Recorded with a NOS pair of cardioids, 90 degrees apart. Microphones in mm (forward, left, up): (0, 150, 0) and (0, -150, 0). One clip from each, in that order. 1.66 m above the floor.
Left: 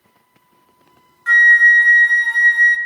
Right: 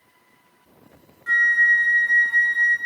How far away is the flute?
About 0.6 m.